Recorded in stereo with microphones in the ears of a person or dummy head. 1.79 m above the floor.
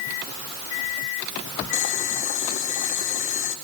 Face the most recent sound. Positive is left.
turn(degrees=45)  # may be behind; listen again after turning